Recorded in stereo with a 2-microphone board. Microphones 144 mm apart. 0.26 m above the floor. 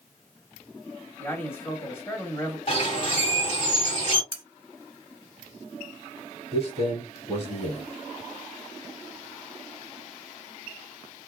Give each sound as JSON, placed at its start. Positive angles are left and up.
{"t": 1.2, "sound": "a man speaking", "side_deg": 15, "distance_m": 1.0}
{"t": 2.7, "sound": "a bird", "side_deg": 45, "distance_m": 1.5}
{"t": 4.3, "sound": "cutlery clinking", "side_deg": -35, "distance_m": 0.8}
{"t": 6.5, "sound": "a man speaking", "side_deg": 45, "distance_m": 1.7}